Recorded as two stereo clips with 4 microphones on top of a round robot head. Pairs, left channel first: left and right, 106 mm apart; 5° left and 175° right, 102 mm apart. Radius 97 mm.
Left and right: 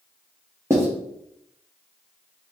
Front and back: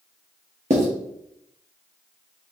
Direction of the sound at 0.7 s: 160° right.